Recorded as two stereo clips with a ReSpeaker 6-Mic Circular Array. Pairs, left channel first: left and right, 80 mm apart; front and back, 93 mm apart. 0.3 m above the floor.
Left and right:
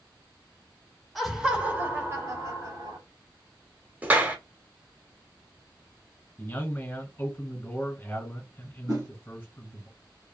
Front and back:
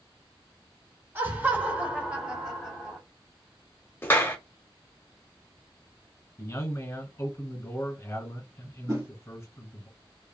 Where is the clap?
40° right, 0.8 m.